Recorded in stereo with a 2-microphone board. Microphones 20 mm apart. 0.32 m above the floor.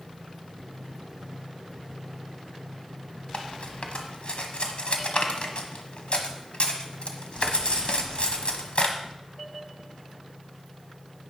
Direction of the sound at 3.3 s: 65° left (ahead or behind).